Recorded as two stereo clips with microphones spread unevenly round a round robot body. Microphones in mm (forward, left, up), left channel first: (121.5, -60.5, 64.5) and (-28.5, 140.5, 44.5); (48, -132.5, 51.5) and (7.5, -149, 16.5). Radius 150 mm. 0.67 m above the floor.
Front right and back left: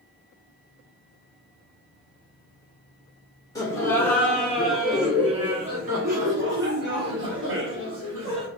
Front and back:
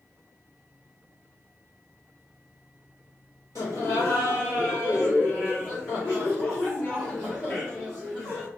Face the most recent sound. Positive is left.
turn(degrees=110)